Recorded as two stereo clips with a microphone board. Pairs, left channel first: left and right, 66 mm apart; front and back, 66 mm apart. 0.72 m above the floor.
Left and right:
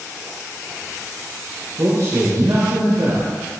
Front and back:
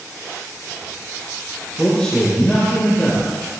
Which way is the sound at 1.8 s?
80° right.